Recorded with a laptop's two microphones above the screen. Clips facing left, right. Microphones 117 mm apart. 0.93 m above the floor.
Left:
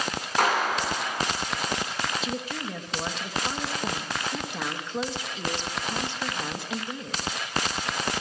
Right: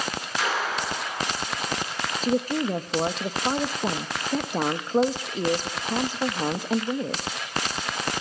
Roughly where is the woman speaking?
Right.